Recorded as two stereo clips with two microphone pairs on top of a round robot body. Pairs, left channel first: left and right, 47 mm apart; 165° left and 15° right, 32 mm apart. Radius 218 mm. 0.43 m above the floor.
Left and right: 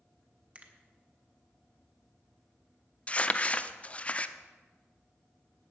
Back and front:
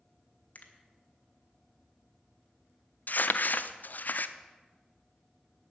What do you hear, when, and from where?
0.6 s a finger snap: 155° right, 1.9 m
3.1 s crumpling: 145° left, 0.8 m